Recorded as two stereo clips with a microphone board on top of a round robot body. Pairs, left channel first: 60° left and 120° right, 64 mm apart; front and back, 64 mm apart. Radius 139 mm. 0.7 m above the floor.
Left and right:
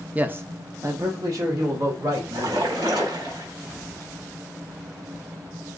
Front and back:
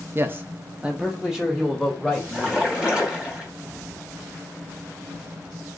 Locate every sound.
0.1 s a man speaking: 170° right, 0.7 m; by 2.7 s 85° right, 1.7 m
2.3 s a splash: 100° right, 1.4 m